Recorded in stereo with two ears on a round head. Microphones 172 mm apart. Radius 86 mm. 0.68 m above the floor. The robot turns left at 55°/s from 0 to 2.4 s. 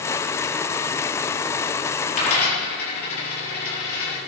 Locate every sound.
2.1 s a dropped coin: 40° left (ahead or behind), 6 m; by 4.2 s 55° left (ahead or behind), 6 m